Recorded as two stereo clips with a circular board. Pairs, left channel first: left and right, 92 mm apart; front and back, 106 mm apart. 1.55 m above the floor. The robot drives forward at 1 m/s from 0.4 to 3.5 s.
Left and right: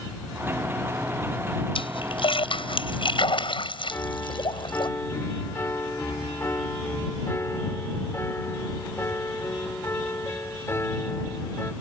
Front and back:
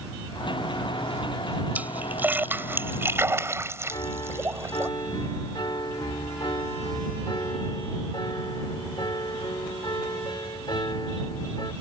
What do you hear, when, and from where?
1.8 s a splash: 105° left; by 4.9 s 115° left
3.9 s a piano: 35° left